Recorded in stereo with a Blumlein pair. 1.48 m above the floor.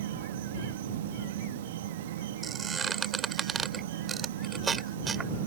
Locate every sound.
0.0 s an insect: 55° right
2.4 s a squeak: 20° right